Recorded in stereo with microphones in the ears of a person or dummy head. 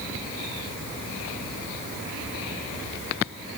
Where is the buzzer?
No buzzer in this recording.